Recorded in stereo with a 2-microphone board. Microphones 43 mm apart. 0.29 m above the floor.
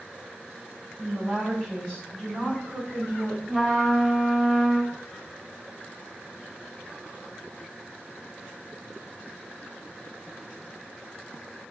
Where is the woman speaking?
10° left (ahead or behind), 1.2 m; by 3.4 s 45° left (ahead or behind), 1.5 m.